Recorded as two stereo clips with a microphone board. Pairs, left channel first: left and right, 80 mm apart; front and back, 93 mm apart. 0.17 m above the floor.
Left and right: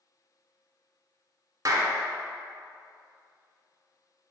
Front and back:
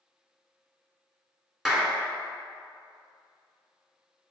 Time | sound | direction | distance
1.6 | a clap | 95° right | 1.2 m